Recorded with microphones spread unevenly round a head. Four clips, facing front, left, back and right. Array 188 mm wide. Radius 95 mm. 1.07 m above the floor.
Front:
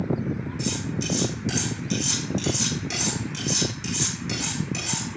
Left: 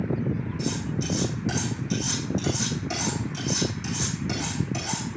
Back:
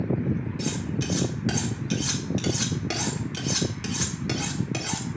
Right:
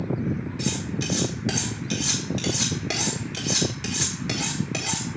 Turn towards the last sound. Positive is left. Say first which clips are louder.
# even, even
turn(degrees=-120)